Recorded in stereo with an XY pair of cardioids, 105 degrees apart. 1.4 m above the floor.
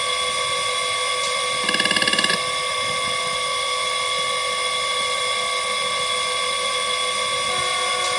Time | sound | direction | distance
0.0 | a machine running | 5° right | ?